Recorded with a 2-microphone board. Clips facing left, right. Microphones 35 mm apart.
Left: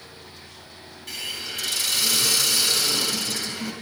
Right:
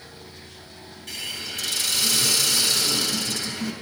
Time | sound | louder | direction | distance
1.1 | a hiss | even | 5° left (ahead or behind) | 4.5 m